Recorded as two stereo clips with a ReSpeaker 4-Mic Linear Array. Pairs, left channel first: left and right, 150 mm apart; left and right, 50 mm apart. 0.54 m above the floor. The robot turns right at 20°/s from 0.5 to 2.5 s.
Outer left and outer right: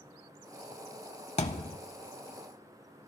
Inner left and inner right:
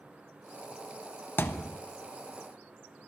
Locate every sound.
1.4 s a thud: 45° left (ahead or behind), 0.6 m; by 1.8 s 40° left (ahead or behind), 0.6 m